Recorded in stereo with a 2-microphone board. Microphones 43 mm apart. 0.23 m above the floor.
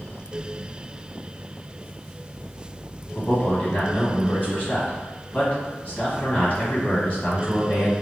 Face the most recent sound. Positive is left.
turn(degrees=35)  # may be behind; listen again after turning